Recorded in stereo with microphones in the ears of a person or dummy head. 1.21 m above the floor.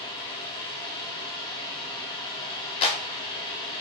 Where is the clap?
35° left (ahead or behind), 0.6 m.